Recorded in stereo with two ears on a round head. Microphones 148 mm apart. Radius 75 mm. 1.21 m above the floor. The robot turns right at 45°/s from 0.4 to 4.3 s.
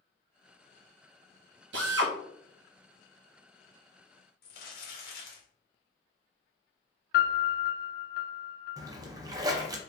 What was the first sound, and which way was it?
A drill, 80° right.